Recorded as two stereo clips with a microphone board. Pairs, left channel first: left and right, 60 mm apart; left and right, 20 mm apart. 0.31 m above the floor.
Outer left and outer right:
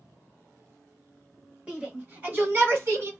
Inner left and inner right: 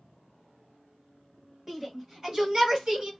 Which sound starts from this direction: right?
A shout, at 1.7 s.